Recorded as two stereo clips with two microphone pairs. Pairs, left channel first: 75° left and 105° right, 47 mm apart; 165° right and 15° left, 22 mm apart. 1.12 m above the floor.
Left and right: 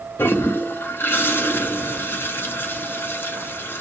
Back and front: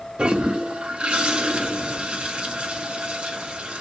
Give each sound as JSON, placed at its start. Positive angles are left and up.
{"t": 0.2, "sound": "a toilet flushing", "azimuth_deg": 45, "distance_m": 0.7}